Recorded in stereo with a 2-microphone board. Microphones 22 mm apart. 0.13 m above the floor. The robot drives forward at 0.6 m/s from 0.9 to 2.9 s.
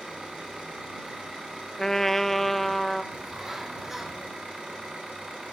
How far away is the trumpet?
About 0.5 m.